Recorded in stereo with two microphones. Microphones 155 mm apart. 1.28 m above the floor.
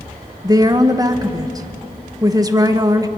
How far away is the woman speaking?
About 1.4 m.